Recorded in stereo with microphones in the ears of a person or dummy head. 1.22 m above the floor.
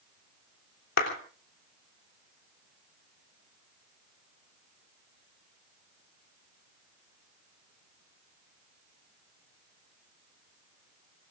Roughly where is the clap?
Left.